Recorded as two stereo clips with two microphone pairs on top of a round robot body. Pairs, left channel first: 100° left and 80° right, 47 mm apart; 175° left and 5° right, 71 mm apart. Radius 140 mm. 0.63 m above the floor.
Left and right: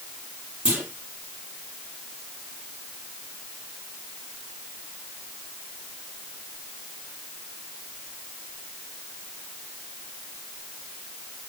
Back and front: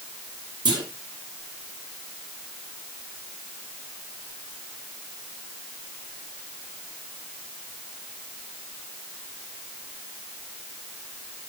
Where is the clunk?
10° right, 7 m.